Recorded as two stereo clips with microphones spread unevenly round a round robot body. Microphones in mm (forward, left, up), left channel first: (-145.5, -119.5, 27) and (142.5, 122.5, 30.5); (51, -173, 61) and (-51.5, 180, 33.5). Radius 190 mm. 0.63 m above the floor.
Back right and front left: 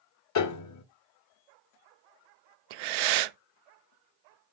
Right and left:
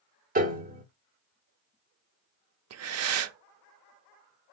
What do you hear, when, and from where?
0.3 s a piano: 175° left, 1.2 m
2.7 s breathing: 50° left, 0.5 m